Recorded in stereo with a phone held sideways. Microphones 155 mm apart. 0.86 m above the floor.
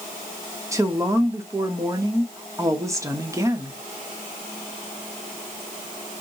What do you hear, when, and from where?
0.7 s a woman speaking: 20° right (ahead or behind), 0.9 m